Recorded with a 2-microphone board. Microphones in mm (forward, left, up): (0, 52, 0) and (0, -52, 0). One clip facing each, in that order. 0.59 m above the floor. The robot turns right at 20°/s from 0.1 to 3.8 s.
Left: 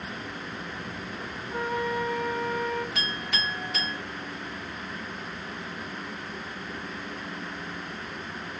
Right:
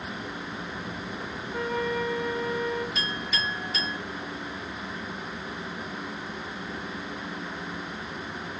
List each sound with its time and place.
1.5 s a flute: 35° left (ahead or behind), 1.5 m; by 2.9 s 45° left (ahead or behind), 1.5 m
3.0 s a clink: 70° left (ahead or behind), 3 m; by 4.0 s 55° left (ahead or behind), 3 m